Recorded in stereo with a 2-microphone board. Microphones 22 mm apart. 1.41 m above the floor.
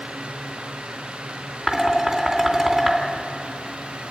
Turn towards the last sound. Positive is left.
turn(degrees=-15)  # may be behind; listen again after turning